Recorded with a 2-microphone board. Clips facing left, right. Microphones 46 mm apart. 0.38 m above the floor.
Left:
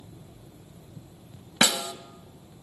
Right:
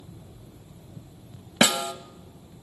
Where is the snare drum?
30° right (ahead or behind), 1.0 m.